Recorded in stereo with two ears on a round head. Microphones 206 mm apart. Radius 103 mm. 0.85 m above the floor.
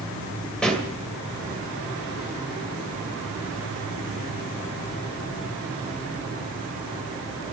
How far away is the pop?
About 2.5 m.